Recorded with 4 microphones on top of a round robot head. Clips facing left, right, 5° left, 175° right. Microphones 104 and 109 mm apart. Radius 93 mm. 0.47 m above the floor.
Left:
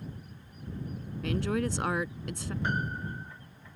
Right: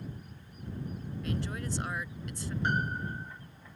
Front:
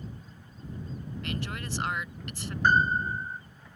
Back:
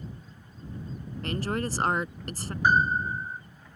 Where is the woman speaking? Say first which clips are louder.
Left 7 dB, back 8 dB; 130° left.